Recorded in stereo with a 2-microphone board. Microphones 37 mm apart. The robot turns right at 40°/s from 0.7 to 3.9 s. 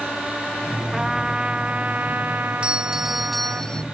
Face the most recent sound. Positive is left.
turn(degrees=25)